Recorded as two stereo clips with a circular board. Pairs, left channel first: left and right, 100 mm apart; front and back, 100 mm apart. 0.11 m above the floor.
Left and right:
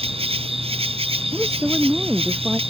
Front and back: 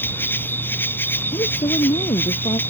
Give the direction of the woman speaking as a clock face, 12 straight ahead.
12 o'clock.